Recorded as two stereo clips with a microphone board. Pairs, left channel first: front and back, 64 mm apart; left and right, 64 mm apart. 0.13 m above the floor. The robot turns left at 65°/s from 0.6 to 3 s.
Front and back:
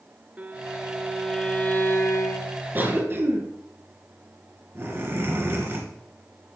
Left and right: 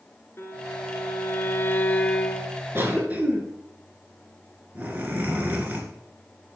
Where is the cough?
130° right, 2.5 m; by 6.6 s 145° right, 2.5 m.